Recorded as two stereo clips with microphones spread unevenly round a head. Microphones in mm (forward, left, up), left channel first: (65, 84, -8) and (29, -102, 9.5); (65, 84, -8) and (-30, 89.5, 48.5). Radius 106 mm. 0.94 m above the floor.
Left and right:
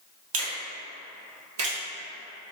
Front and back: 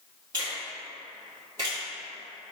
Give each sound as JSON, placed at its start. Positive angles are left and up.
{"t": 0.3, "sound": "a finger snap", "azimuth_deg": -110, "distance_m": 2.0}